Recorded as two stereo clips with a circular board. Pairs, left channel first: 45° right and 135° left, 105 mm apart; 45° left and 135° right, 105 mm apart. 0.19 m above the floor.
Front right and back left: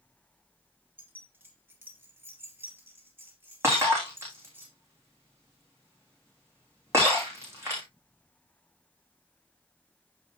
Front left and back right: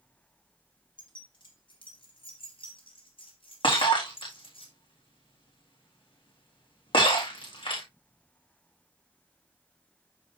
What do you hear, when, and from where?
1.0 s keys jangling: 70° left, 2 m
3.6 s breaking glass: 75° left, 5 m